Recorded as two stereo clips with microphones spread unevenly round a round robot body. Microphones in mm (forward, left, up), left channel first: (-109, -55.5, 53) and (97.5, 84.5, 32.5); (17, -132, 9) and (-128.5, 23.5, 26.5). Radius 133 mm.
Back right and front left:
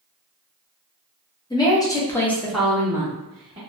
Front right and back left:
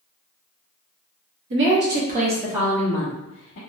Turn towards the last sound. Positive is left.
turn(degrees=-30)